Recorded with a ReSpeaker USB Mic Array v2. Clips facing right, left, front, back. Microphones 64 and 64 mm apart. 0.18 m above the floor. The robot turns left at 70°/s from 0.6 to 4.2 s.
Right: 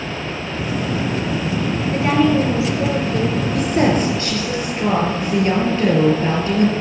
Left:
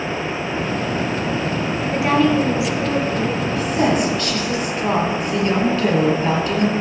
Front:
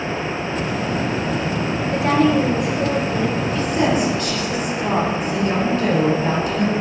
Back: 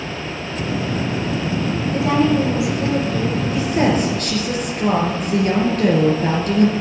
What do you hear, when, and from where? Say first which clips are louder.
1.9 s a woman speaking: even, front 1 dB; 15° left, 3 m; by 3.4 s 90° right, 3 m
3.5 s a woman speaking: right 2 dB, back 2 dB; 105° right, 4 m; by 6.7 s 155° right, 4 m